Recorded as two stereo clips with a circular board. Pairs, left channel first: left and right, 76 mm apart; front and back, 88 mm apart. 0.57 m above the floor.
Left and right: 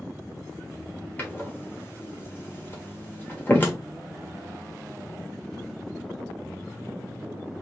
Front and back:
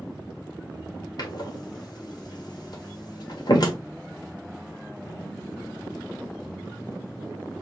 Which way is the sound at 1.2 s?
30° left.